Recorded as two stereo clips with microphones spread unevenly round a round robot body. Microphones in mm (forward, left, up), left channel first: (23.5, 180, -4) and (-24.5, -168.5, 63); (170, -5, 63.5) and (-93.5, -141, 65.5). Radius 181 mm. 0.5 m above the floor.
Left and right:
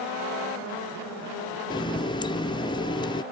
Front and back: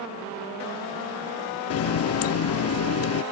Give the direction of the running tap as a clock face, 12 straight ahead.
11 o'clock.